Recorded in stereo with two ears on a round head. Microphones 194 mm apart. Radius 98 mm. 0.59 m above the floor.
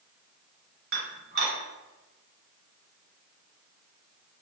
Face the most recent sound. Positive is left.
turn(degrees=-45)  # may be behind; listen again after turning